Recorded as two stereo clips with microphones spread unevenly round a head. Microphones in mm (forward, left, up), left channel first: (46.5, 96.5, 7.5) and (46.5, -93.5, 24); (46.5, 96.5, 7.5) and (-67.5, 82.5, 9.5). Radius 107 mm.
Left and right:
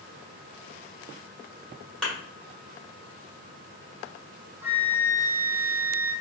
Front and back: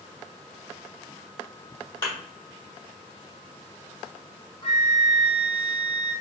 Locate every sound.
2.0 s a thud: 5° right, 1.6 m
4.6 s a flute: 20° right, 0.8 m